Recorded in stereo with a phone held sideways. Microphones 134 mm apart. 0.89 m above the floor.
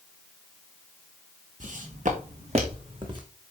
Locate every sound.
1.6 s footsteps: 70° right (ahead or behind), 3 m; by 3.2 s 35° right (ahead or behind), 3 m